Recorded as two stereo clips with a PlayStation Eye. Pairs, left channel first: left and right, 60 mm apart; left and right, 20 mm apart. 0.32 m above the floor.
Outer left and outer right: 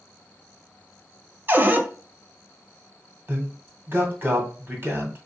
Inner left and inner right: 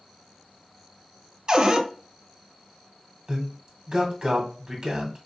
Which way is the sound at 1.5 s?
35° right (ahead or behind).